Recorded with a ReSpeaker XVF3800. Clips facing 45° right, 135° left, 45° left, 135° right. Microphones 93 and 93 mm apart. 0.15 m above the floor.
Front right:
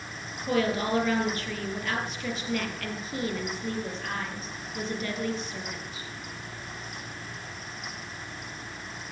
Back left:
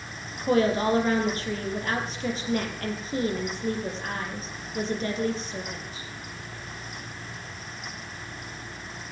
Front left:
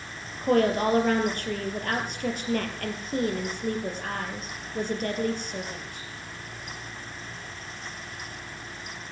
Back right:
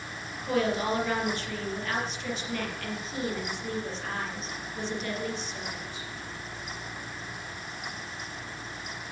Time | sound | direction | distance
0.4 | a woman speaking | 80° left | 4 m